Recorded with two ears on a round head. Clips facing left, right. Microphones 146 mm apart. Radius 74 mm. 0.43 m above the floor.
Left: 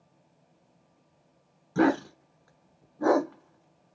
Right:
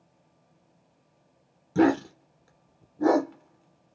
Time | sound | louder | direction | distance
1.8 | a dog barking | right 2 dB | 25° right (ahead or behind) | 1.4 m